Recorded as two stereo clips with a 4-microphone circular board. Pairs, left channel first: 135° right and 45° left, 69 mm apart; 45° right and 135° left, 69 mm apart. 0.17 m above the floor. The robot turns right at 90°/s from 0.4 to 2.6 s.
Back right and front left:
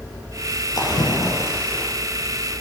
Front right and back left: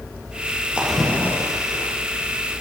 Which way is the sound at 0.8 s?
155° right.